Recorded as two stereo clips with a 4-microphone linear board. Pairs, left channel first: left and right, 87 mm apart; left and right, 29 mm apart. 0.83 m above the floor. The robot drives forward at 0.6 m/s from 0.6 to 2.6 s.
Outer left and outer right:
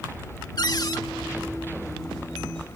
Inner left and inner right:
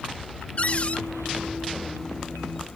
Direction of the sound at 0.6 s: 50° left (ahead or behind).